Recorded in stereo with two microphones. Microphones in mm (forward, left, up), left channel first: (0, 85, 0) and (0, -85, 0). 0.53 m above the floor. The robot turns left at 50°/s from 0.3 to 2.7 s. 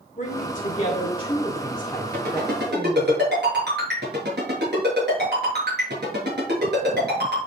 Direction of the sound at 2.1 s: 60° right (ahead or behind).